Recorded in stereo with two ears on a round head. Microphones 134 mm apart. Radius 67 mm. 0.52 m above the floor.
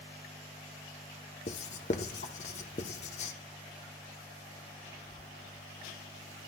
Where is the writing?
50° left (ahead or behind), 1.0 m.